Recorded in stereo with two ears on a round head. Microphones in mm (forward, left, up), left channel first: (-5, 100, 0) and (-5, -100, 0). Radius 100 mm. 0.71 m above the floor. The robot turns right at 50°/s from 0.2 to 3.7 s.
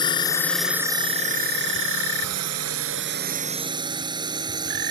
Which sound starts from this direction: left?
A drone, at 0.0 s.